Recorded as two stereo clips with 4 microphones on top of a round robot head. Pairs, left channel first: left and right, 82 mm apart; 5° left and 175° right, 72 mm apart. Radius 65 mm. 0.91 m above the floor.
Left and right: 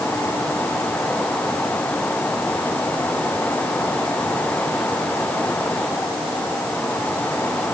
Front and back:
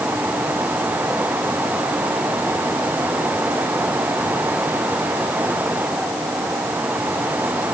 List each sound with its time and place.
Only background noise.